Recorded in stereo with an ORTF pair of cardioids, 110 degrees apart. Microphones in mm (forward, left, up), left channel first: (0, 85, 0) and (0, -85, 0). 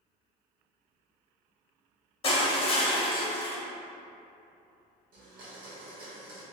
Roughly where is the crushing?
Ahead left.